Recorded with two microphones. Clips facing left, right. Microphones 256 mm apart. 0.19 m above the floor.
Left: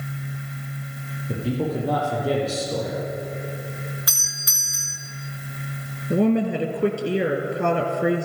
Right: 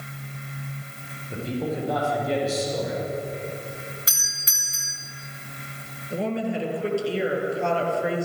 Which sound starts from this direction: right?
A doorbell, at 4.1 s.